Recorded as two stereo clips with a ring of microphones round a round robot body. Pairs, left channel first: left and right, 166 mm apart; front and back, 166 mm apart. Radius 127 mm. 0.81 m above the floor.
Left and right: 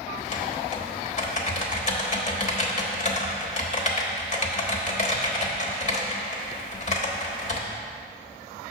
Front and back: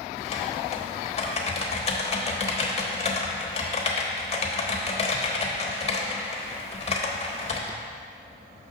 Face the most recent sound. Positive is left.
turn(degrees=50)